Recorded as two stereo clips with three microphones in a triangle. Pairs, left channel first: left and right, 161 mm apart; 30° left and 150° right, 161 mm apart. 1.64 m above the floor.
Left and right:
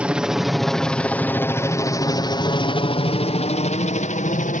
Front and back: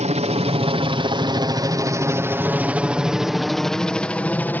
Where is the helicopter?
170° right; by 4.6 s 105° left.